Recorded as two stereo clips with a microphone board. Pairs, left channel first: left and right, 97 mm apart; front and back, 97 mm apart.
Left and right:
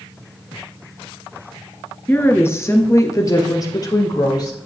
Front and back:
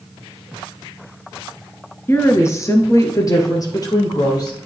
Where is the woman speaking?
35° left, 1.6 m; by 4.6 s 45° left, 3.5 m.